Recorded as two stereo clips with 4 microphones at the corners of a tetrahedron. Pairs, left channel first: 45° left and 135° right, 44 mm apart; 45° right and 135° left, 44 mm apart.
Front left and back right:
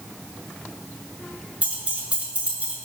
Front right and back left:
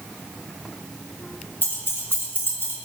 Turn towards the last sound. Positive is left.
turn(degrees=-80)